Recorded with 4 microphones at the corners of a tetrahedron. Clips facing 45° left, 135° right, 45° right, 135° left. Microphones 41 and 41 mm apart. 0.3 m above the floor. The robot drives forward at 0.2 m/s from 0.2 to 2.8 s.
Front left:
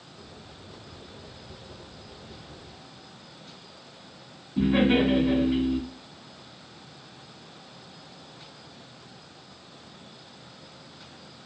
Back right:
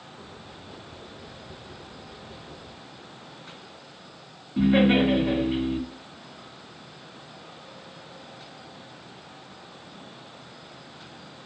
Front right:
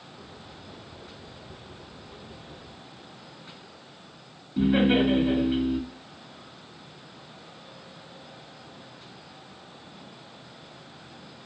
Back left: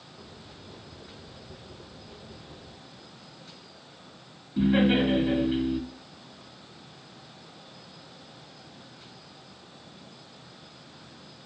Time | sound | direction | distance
4.6 | laughter | 135° right | 1.3 m